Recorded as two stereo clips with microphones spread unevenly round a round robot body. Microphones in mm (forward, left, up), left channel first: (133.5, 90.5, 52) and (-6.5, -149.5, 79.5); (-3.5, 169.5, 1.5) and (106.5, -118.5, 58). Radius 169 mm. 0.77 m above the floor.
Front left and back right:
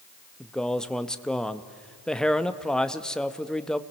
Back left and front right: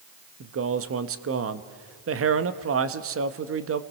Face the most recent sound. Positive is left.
turn(degrees=-25)